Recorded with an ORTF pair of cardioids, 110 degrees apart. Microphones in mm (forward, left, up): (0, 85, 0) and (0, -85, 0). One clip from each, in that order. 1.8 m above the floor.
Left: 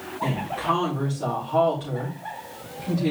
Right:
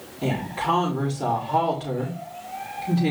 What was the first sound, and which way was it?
A woman speaking, 35° right.